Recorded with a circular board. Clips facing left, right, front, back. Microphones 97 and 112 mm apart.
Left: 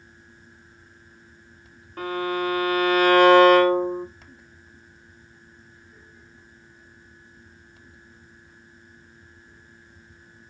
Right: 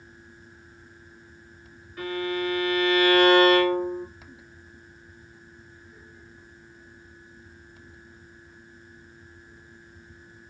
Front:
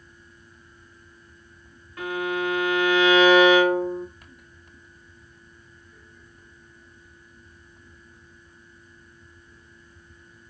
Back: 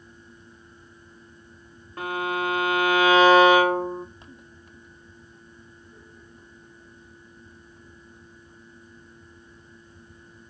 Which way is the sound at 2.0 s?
125° left.